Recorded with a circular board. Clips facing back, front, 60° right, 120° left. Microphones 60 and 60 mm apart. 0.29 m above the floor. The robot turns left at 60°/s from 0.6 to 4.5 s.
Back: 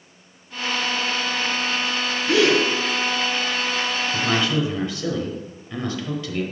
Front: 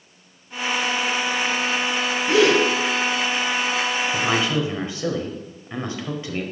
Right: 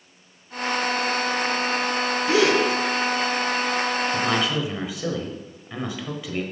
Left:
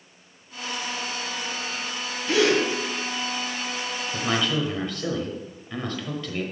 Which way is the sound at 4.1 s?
30° left.